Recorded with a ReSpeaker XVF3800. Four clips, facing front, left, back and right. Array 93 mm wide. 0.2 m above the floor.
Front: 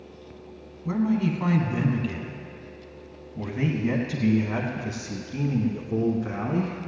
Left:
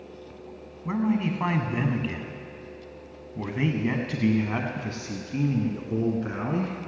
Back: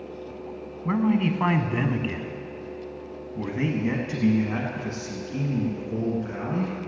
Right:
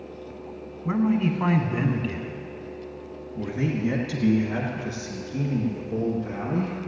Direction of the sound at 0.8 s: Straight behind.